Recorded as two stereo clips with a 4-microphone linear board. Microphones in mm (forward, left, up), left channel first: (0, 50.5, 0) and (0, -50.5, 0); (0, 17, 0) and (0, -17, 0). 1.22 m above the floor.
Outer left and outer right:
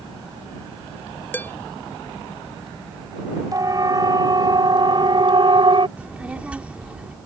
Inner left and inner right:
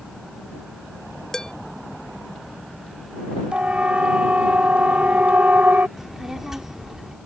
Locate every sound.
1.3 s dishes clattering: 20° left (ahead or behind)
3.5 s a siren: 35° right (ahead or behind); by 5.9 s 55° right (ahead or behind)
6.0 s a child speaking: 10° right (ahead or behind)